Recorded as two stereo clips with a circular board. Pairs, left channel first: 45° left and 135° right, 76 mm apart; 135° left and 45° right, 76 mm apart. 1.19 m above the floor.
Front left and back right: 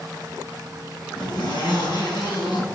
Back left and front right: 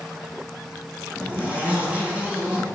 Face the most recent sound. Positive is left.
turn(degrees=30)